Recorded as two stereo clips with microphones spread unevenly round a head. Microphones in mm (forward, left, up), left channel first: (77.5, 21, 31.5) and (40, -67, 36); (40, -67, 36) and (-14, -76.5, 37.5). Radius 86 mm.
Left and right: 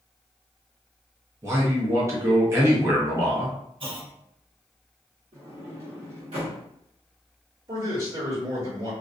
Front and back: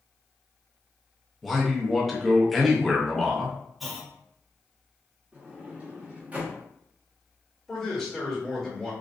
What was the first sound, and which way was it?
A man speaking, 80° right.